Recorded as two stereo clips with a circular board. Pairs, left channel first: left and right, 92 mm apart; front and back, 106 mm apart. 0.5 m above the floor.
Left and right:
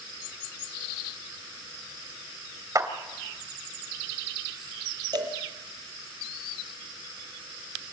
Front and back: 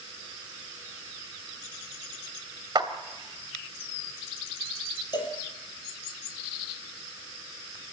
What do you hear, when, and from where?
2.8 s a clap: 140° right, 2.5 m
5.1 s a cowbell: 50° right, 4.5 m